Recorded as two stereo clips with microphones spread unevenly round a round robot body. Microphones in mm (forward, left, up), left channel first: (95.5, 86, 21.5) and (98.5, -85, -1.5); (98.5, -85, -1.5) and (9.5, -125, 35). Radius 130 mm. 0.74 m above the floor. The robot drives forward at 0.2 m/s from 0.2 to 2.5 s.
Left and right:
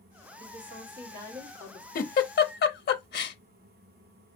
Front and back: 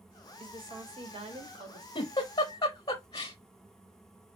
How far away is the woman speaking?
About 1.4 m.